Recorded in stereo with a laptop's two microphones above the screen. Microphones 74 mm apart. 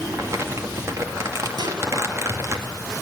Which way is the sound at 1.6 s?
75° right (ahead or behind).